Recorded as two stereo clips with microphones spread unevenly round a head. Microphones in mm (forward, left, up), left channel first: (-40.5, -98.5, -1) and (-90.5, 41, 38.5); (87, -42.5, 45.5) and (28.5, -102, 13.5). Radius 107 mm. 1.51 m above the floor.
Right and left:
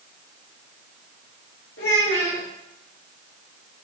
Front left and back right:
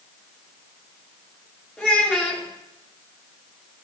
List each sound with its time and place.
1.8 s a child speaking: 30° right, 3 m